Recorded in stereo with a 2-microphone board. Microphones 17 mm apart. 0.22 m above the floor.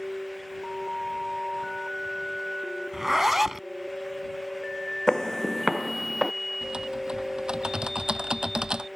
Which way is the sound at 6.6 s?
60° right (ahead or behind).